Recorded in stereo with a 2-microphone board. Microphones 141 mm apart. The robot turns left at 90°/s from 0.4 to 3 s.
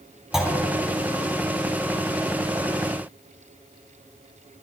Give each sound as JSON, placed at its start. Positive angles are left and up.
{"t": 0.3, "sound": "a clunk", "side_deg": -5, "distance_m": 0.6}